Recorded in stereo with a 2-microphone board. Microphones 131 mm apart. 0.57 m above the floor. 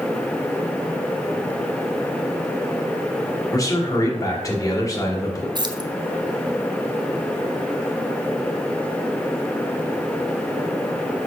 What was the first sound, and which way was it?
A man speaking, 25° left (ahead or behind).